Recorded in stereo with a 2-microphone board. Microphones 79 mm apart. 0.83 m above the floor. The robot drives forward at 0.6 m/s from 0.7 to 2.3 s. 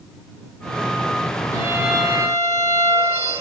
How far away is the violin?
About 2 m.